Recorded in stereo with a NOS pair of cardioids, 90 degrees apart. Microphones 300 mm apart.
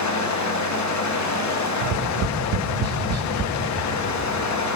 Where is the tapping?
60° right, 1.6 m.